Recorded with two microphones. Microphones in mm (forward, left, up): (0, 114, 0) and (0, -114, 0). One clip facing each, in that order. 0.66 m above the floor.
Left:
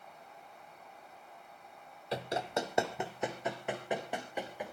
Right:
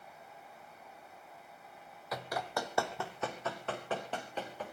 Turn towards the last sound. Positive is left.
turn(degrees=10)  # may be behind; listen again after turning